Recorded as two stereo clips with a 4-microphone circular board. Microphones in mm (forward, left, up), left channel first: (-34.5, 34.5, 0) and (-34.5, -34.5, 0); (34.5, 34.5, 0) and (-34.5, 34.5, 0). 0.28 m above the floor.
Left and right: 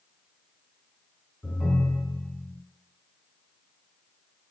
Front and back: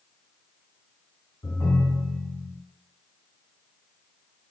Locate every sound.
1.4 s a ringtone: 15° left, 1.0 m